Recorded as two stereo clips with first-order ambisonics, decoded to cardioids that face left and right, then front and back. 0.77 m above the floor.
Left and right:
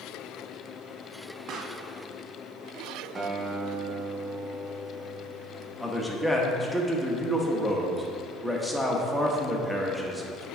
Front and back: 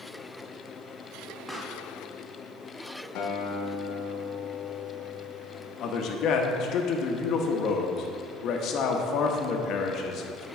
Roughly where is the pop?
Right.